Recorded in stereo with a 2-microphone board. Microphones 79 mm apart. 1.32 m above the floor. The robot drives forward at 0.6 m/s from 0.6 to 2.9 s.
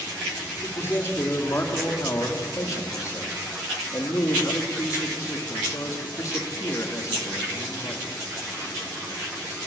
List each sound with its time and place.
0.6 s a man speaking: 30° left (ahead or behind), 4 m; by 8.1 s 40° left (ahead or behind), 3 m